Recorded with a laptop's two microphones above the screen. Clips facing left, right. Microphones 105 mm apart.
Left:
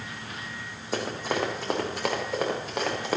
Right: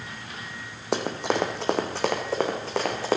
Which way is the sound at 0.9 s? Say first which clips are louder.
Right 3 dB; 70° right (ahead or behind).